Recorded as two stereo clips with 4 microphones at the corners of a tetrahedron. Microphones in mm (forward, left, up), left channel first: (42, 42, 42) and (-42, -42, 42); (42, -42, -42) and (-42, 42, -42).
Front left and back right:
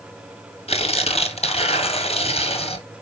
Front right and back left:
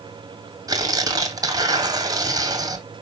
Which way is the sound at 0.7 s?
75° left.